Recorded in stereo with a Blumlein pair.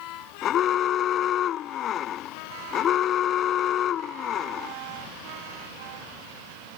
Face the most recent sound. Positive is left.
turn(degrees=30)